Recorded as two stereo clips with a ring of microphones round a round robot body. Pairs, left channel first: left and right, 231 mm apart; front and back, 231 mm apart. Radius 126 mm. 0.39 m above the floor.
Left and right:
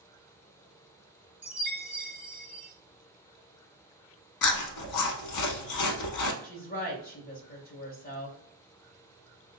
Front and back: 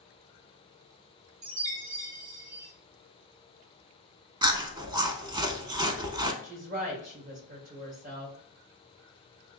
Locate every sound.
1.4 s a chime: 175° right, 1.7 m
4.4 s chewing: 110° left, 0.7 m
6.4 s a woman speaking: 135° left, 2 m